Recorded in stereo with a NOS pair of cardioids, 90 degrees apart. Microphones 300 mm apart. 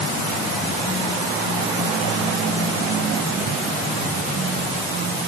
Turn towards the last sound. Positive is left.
No sound to turn to.